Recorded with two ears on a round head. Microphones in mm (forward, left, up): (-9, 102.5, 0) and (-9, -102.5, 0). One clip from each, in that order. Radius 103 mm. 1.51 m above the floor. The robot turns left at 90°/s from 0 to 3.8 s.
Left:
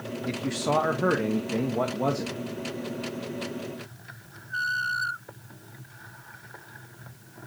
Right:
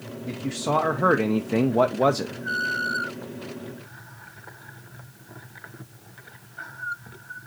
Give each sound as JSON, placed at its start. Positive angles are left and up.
{"t": 0.3, "sound": "a man speaking", "azimuth_deg": 40, "distance_m": 0.6}